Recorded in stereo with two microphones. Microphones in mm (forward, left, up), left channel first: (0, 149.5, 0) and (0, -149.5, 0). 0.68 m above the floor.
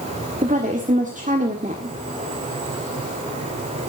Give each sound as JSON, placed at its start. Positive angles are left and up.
{"t": 0.4, "sound": "a woman speaking", "side_deg": -25, "distance_m": 1.7}